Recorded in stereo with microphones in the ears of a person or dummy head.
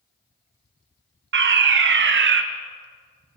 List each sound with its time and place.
1.3 s a fire alarm: 55° right (ahead or behind), 1.5 m